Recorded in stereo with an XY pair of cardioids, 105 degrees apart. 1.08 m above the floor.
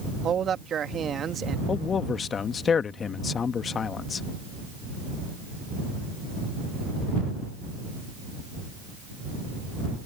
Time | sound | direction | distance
0.2 | a man speaking | 50° right | ?
1.7 | a man speaking | 45° left | ?